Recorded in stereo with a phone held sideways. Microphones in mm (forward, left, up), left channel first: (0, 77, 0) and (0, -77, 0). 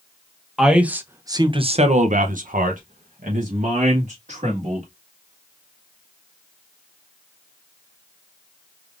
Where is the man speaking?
Centre (ahead or behind), 0.9 m; by 4.9 s 55° right (ahead or behind), 1.9 m.